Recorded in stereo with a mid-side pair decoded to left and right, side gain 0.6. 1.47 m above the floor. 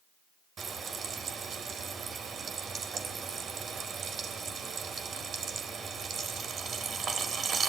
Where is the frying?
40° right, 3.5 m.